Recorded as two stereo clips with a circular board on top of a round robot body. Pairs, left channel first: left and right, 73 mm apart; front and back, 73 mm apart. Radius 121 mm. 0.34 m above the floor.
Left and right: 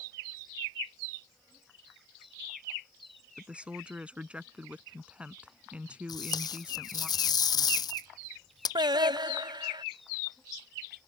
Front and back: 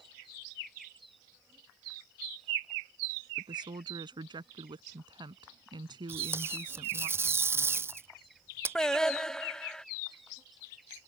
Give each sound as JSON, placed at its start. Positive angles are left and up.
{"t": 3.4, "sound": "a woman speaking", "azimuth_deg": -165}
{"t": 6.1, "sound": "tape being pulled", "azimuth_deg": 120}
{"t": 8.8, "sound": "singing", "azimuth_deg": -85}